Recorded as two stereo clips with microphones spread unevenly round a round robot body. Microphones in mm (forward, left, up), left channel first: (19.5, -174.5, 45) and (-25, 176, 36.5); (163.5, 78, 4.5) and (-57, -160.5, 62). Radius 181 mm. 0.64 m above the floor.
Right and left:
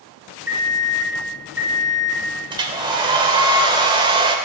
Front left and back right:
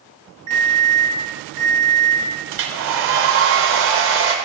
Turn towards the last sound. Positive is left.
turn(degrees=175)